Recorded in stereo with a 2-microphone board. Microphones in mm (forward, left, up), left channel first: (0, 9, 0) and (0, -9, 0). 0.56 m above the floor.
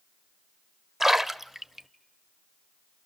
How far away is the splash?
About 0.8 m.